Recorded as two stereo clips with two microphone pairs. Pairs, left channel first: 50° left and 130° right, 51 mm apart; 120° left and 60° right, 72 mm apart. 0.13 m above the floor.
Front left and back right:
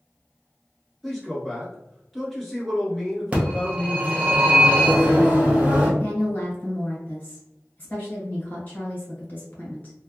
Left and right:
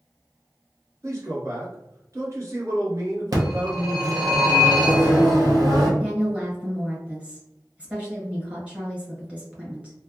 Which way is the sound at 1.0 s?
40° right.